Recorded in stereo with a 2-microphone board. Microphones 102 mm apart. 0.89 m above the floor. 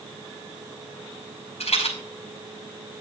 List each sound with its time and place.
1.6 s a rattle: 85° left, 6 m